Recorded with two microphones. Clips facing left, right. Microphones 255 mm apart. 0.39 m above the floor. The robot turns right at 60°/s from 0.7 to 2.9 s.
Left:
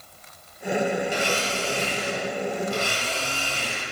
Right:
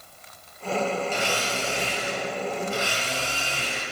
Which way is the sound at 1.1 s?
15° left.